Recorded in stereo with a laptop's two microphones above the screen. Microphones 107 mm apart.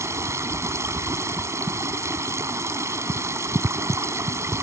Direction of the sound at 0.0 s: 25° right (ahead or behind).